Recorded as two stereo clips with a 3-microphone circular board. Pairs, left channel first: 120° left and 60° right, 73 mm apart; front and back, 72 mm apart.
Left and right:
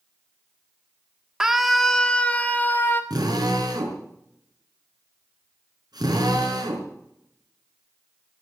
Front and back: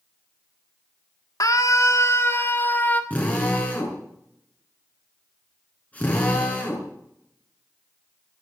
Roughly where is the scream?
Ahead.